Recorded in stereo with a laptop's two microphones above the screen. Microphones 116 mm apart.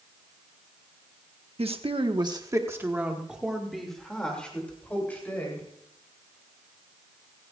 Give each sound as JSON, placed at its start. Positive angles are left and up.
{"t": 1.6, "sound": "a woman speaking", "side_deg": -60, "distance_m": 1.1}